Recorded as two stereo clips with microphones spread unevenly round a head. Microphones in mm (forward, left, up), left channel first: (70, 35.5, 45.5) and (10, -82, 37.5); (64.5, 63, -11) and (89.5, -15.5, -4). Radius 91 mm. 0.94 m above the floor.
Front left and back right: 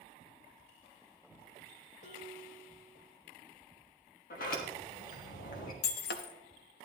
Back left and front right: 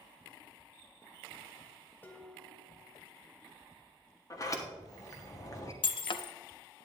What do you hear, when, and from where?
2.0 s dishes clattering: 40° left, 2 m
4.3 s a sliding door: 60° left, 1.6 m
5.8 s breaking glass: 85° left, 0.7 m